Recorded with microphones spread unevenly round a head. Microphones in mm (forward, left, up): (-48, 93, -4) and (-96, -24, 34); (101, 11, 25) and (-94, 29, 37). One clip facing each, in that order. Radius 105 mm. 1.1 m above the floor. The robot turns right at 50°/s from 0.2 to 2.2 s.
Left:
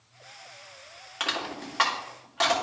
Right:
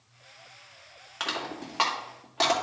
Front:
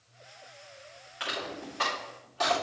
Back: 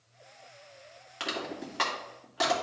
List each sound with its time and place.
1.2 s crushing: 145° left, 2.5 m; by 2.5 s 165° right, 2.5 m